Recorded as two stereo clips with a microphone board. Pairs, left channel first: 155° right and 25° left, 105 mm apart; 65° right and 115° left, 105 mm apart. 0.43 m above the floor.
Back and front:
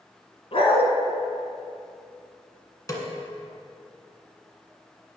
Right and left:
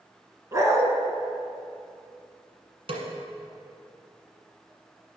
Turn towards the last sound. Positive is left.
turn(degrees=145)